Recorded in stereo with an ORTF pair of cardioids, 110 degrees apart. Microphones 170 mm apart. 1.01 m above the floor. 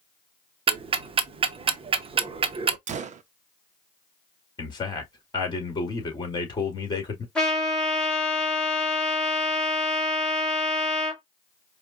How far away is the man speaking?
About 2 m.